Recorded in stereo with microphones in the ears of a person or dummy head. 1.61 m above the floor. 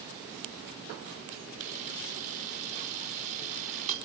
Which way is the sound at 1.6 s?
40° right (ahead or behind).